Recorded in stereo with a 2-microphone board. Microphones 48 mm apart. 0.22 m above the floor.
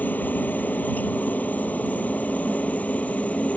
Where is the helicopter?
35° left (ahead or behind); by 3.6 s 30° left (ahead or behind).